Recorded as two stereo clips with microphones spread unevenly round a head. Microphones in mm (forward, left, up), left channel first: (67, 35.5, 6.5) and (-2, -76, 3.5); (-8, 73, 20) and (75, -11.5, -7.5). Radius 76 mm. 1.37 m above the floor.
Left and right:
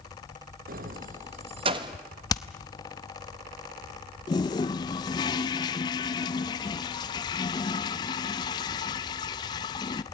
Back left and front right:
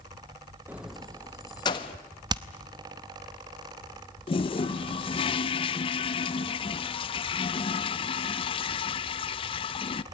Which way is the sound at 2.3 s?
10° left.